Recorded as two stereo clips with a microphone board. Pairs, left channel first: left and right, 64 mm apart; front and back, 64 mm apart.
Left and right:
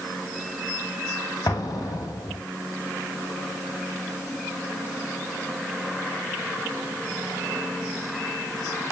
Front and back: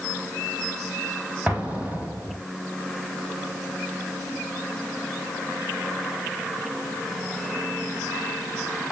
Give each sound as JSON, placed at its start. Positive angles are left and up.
{"t": 1.5, "sound": "an explosion", "azimuth_deg": 110, "distance_m": 1.8}